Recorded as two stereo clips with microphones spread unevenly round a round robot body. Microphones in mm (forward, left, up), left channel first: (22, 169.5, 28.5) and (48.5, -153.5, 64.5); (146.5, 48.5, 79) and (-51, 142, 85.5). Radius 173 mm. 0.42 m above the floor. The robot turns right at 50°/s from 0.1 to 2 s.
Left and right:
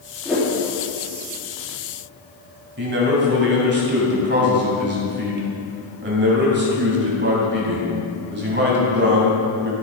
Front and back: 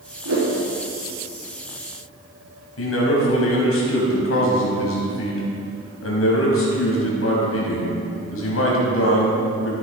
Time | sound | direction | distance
0.2 | a whoosh | straight behind | 4 m
2.8 | a man speaking | 25° right | 3.5 m